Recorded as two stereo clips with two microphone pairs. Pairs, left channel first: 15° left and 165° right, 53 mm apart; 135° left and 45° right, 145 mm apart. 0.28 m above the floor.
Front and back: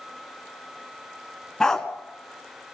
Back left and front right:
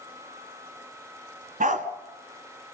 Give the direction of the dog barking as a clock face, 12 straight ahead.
2 o'clock.